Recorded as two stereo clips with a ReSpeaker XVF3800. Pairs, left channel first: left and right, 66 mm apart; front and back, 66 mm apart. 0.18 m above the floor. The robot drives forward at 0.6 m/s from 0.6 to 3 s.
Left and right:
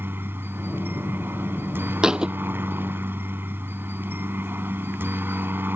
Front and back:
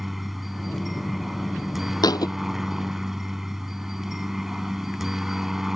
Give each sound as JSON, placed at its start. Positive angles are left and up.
{"t": 0.0, "sound": "a helicopter", "azimuth_deg": -95}
{"t": 2.0, "sound": "a thud", "azimuth_deg": -10}